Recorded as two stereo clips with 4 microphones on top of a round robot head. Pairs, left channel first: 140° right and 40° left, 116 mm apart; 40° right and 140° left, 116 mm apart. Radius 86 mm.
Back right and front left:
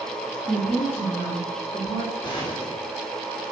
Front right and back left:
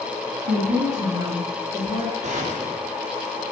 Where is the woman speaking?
145° left, 4 m; by 2.1 s 165° left, 4.5 m.